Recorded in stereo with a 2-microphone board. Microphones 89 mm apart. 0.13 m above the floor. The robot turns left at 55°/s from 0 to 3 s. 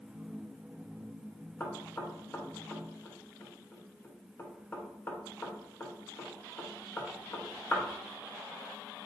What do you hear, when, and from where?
1.6 s knocking: 20° left (ahead or behind), 0.9 m; by 7.8 s 25° left (ahead or behind), 0.9 m